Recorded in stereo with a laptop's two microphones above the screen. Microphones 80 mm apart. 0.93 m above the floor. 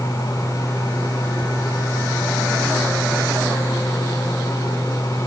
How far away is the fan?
About 5 m.